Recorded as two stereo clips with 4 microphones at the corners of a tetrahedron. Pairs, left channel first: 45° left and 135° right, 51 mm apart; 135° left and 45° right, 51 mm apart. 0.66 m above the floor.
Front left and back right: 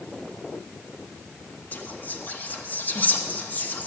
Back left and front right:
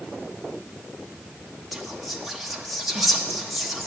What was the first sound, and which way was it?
Whispering, 45° left.